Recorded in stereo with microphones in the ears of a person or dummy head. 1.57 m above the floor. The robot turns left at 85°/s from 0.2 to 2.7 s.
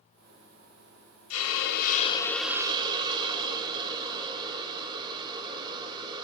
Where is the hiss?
95° left, 0.5 m; by 6.2 s 25° right, 0.5 m.